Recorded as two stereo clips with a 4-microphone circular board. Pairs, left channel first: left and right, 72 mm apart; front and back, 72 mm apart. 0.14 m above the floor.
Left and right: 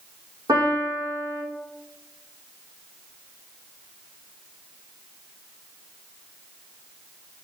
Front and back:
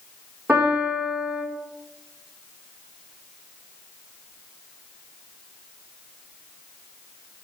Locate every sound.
0.5 s a piano: 110° right, 5 m